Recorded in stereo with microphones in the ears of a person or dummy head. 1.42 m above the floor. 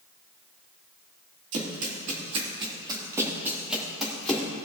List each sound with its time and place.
1.5 s running footsteps: 60° right (ahead or behind), 3.5 m; by 4.5 s 15° left (ahead or behind), 4 m